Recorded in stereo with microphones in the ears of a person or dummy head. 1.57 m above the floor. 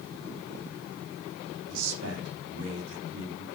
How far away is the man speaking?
About 4 m.